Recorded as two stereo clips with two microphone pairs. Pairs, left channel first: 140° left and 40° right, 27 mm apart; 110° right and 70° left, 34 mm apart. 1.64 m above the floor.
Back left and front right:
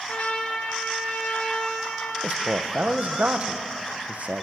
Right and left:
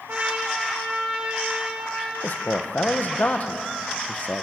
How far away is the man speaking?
About 1.1 m.